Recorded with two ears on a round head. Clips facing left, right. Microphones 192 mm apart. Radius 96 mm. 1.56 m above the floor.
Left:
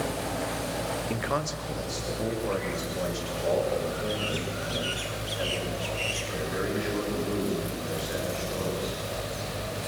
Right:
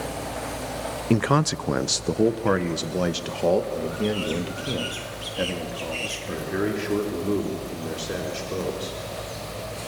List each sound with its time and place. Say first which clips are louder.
1.1 s a man speaking: right 14 dB; 50° right (ahead or behind), 0.6 m; by 9.0 s 60° right (ahead or behind), 5.5 m